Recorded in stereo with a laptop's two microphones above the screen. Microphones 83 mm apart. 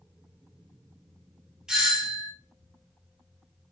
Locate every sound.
1.7 s a doorbell: 5° right (ahead or behind), 0.8 m